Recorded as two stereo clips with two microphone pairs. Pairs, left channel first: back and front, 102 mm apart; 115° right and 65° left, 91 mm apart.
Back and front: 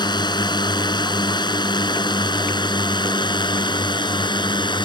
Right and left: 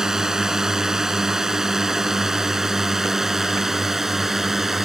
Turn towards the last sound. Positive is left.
turn(degrees=150)